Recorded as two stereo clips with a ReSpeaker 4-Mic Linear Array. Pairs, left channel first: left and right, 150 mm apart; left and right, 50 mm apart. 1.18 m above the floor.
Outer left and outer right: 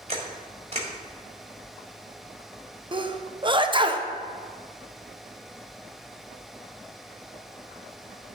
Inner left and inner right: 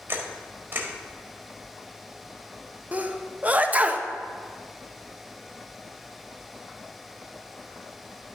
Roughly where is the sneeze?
Right.